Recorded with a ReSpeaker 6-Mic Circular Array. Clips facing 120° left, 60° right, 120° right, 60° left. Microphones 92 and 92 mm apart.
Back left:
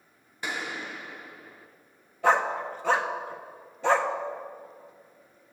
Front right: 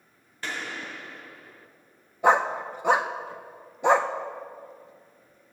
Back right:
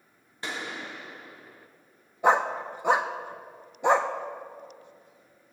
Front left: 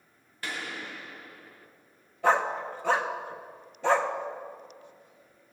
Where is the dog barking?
85° right, 0.5 m.